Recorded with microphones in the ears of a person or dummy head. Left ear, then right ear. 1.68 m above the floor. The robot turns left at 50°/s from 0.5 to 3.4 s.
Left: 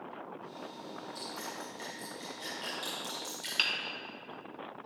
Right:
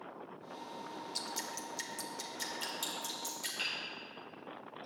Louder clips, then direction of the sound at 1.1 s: Right 1 dB; 50° right (ahead or behind).